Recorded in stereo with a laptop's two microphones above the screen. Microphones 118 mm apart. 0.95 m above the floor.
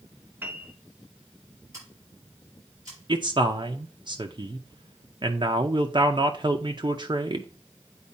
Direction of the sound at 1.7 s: 30° right (ahead or behind).